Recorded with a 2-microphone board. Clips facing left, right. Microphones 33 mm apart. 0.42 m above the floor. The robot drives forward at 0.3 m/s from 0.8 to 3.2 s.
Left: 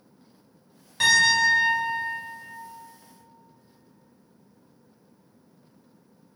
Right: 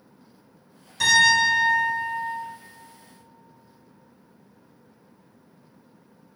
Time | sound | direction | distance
1.0 | a piano | 35° left (ahead or behind) | 1.7 m